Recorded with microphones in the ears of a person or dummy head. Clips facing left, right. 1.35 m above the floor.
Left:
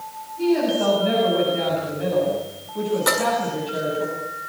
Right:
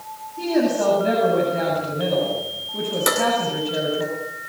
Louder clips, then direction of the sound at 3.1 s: Right 1 dB; 25° right (ahead or behind).